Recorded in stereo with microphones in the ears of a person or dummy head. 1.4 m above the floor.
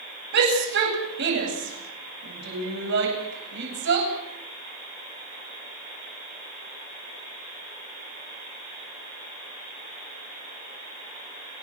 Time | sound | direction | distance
0.3 | a shout | 65° right (ahead or behind) | 9.5 m